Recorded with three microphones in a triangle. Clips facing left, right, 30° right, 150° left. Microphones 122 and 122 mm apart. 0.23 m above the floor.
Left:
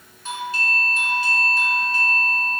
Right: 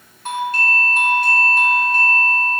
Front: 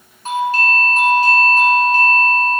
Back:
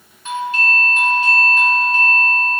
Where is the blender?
I don't hear a blender.